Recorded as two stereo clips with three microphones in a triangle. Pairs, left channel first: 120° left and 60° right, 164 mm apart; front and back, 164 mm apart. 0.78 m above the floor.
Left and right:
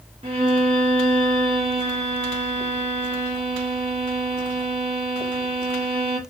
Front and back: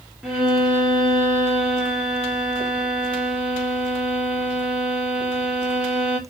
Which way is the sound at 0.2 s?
95° right.